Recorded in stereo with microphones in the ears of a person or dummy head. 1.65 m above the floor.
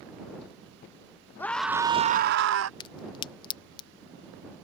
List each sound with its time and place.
1.4 s a scream: 10° left (ahead or behind); by 2.7 s 75° right (ahead or behind)
2.8 s a crack: 30° left (ahead or behind)